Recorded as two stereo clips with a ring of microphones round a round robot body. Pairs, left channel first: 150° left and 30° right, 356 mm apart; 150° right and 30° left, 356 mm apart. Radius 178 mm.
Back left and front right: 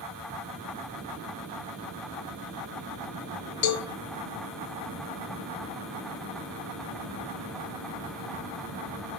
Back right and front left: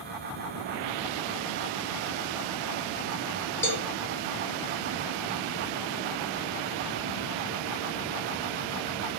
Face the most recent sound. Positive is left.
turn(degrees=125)